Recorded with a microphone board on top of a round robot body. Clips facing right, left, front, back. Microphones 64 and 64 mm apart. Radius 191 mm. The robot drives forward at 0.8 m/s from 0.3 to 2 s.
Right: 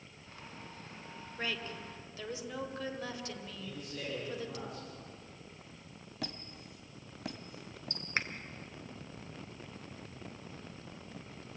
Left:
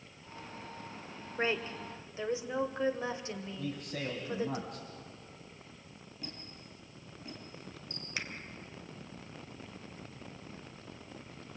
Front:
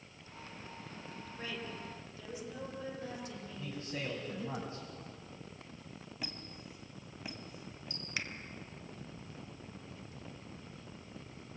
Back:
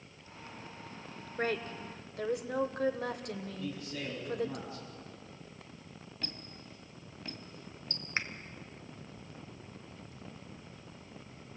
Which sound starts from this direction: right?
A squeak, at 6.2 s.